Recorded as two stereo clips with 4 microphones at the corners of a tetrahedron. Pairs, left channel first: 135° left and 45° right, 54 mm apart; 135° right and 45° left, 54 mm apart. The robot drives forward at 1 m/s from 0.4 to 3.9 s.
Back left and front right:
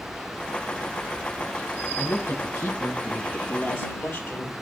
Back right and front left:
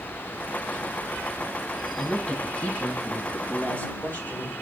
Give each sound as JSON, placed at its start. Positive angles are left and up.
{"t": 2.0, "sound": "a woman speaking", "azimuth_deg": 155, "distance_m": 2.0}